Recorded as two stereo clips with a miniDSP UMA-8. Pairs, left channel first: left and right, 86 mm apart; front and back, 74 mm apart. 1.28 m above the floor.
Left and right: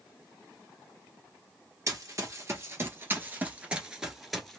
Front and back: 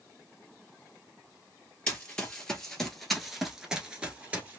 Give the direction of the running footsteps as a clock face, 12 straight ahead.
2 o'clock.